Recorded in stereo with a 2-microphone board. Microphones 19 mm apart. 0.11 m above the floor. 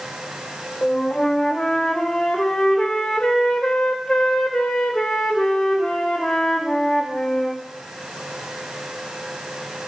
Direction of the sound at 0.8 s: 55° left (ahead or behind).